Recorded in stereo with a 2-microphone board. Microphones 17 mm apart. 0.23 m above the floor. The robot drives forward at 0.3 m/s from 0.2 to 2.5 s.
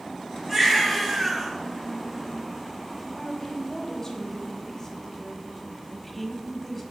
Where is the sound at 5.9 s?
10° left (ahead or behind), 1.0 m.